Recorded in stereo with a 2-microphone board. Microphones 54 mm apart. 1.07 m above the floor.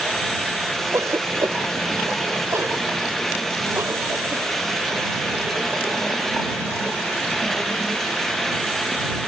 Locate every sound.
0.9 s a cough: 65° right (ahead or behind)